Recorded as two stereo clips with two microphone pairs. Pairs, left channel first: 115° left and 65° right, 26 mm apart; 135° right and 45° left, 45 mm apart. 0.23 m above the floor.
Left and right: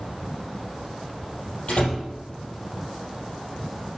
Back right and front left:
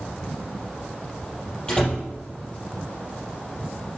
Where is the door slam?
155° left, 4 m.